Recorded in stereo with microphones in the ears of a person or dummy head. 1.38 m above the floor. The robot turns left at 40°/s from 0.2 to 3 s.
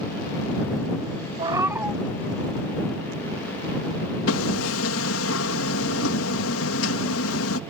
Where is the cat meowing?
30° right (ahead or behind); by 2.0 s 5° right (ahead or behind).